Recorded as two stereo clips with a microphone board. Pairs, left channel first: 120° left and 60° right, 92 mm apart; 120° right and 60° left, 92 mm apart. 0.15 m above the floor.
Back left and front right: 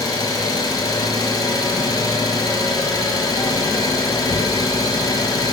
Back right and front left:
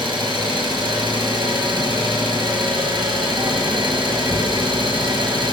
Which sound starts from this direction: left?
An engine running, at 0.0 s.